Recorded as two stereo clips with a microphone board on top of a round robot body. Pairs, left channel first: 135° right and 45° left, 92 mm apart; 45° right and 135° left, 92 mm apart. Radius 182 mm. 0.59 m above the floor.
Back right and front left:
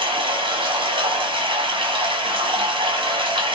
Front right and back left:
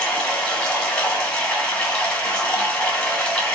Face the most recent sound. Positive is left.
turn(degrees=35)